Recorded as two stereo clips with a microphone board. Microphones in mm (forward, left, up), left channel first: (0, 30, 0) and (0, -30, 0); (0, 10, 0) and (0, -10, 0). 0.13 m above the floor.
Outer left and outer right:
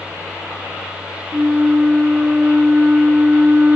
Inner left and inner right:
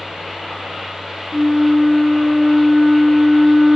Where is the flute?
30° right (ahead or behind), 0.5 m.